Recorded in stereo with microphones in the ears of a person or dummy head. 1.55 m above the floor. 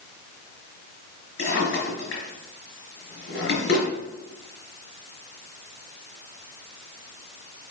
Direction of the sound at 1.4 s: 65° left (ahead or behind).